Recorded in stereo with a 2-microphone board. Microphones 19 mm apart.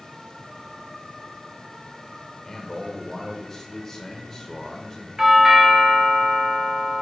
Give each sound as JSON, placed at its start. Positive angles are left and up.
{"t": 2.4, "sound": "a man speaking", "side_deg": 10, "distance_m": 0.8}
{"t": 5.2, "sound": "a doorbell", "side_deg": -25, "distance_m": 0.9}